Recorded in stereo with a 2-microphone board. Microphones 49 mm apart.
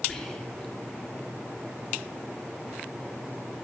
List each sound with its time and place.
0.1 s whispering: 10° left (ahead or behind), 3.5 m